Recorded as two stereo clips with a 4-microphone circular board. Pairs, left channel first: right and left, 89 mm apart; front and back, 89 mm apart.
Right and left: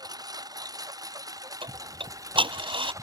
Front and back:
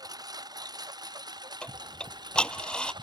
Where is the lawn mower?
135° left; by 3.0 s 140° left.